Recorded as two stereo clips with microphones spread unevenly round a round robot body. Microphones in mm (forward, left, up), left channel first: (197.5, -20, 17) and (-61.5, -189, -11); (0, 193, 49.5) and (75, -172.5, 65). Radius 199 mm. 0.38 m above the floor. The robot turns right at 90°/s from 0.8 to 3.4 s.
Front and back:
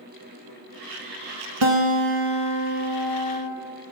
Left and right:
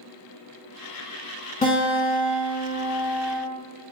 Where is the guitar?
175° left, 0.6 m; by 3.4 s 25° right, 0.6 m.